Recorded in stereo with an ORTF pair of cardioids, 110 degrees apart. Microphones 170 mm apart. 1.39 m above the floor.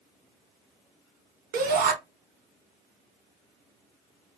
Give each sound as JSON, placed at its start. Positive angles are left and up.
{"t": 1.5, "sound": "a shout", "azimuth_deg": -60, "distance_m": 1.2}